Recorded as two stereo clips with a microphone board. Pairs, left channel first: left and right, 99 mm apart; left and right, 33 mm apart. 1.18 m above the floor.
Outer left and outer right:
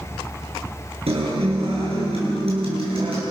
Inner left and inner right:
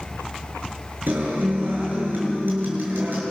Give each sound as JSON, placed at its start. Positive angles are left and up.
{"t": 1.1, "sound": "a guitar", "side_deg": -85, "distance_m": 8.5}